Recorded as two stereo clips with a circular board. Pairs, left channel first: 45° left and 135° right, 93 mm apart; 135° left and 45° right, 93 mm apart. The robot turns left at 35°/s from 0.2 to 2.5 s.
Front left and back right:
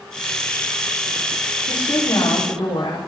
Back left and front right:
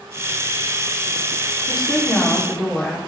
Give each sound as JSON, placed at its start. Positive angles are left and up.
{"t": 1.7, "sound": "a woman speaking", "azimuth_deg": 90, "distance_m": 3.5}